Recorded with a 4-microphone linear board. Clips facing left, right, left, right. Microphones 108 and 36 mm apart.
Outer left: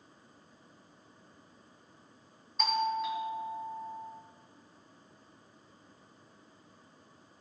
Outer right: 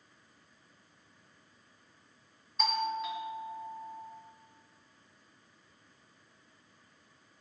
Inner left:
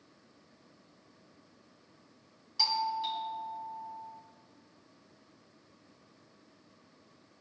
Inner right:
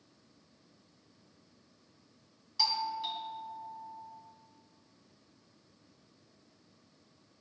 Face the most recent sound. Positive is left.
turn(degrees=0)  # may be behind; listen again after turning